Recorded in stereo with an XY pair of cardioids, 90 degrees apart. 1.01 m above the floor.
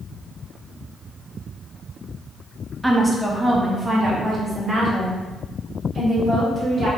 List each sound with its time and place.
2.8 s a woman speaking: 5° right, 0.9 m; by 6.9 s 35° right, 3 m